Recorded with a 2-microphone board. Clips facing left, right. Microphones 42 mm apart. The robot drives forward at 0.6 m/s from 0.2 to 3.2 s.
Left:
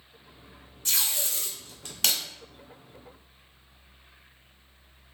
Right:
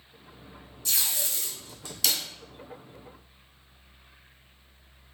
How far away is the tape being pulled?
About 2 m.